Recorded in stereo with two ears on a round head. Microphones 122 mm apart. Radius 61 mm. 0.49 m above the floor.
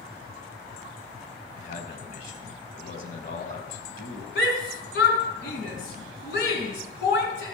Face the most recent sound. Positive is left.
turn(degrees=75)  # may be behind; listen again after turning